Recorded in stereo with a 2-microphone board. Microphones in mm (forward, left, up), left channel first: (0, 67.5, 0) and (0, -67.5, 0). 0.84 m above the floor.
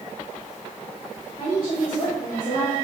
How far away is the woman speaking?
About 3 m.